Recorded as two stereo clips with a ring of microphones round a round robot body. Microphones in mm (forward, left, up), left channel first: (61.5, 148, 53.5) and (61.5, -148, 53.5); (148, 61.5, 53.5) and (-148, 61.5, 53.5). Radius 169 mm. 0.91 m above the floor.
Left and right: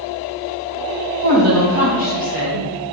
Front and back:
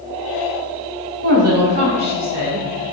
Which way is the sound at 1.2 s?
130° right.